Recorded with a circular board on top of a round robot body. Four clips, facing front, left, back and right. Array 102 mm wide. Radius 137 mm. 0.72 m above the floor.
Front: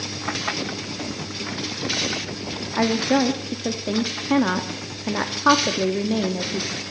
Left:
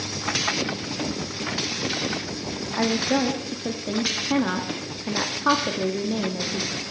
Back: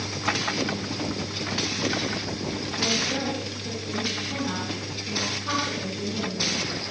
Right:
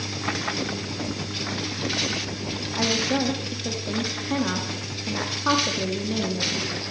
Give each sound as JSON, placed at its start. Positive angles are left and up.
{"t": 2.8, "sound": "a woman speaking", "azimuth_deg": 15, "distance_m": 1.3}